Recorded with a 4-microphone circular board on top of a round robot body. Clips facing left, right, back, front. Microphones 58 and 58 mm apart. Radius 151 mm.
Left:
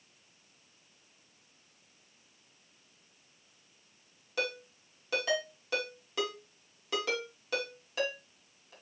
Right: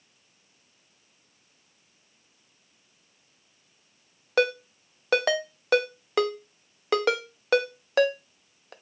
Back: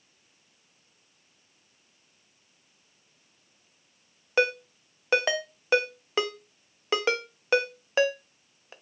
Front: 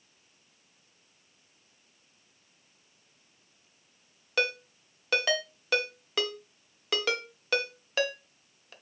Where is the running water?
No running water in this recording.